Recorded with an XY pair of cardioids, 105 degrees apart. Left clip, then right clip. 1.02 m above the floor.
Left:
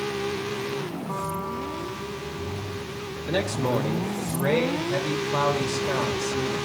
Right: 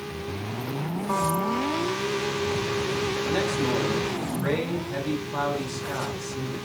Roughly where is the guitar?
Ahead right.